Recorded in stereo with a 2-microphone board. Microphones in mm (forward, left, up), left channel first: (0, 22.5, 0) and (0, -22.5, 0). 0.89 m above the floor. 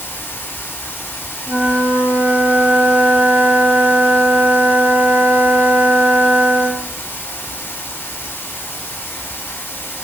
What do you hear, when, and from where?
0.0 s running water: 55° left (ahead or behind), 1.2 m
1.5 s a flute: 45° right (ahead or behind), 1.4 m